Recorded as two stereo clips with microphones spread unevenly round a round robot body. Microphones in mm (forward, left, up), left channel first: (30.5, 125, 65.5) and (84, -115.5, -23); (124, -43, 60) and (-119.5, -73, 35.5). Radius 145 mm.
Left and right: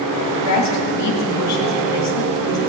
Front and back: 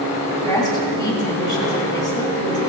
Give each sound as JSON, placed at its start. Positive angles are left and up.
{"t": 0.3, "sound": "a woman speaking", "azimuth_deg": 85, "distance_m": 1.8}